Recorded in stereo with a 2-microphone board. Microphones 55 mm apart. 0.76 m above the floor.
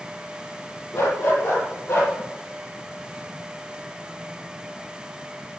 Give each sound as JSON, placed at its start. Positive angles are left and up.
{"t": 0.9, "sound": "a dog barking", "side_deg": 45, "distance_m": 8.5}